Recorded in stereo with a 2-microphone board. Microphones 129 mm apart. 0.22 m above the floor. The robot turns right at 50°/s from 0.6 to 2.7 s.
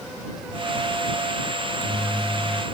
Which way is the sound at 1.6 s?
75° left.